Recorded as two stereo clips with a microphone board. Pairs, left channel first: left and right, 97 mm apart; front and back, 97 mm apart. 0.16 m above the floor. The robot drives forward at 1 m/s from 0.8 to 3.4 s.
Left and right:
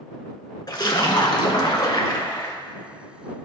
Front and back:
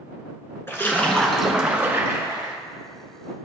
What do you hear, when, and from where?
0.7 s a splash: 60° left, 1.4 m; by 2.5 s 140° left, 1.7 m